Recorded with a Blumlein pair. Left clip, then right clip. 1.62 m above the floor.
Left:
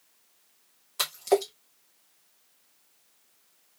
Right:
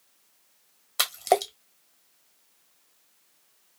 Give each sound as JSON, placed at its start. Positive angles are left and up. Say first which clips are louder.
{"t": 1.0, "sound": "a splash", "louder": "right 2 dB", "azimuth_deg": -70, "distance_m": 0.8}